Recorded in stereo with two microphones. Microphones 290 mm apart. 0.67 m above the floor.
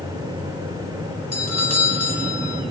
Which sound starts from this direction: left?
A doorbell, at 1.3 s.